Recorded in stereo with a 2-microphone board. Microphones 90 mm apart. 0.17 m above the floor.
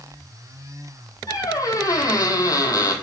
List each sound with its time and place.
1.3 s a squeak: 40° left (ahead or behind), 1.1 m